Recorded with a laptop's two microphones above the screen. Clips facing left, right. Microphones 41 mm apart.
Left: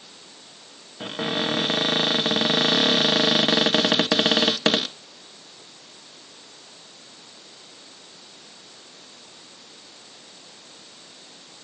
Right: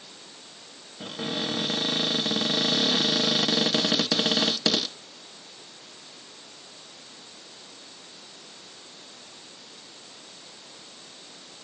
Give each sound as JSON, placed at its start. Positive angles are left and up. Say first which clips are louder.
{"t": 1.0, "sound": "a cupboard door", "louder": "left 5 dB", "side_deg": 40}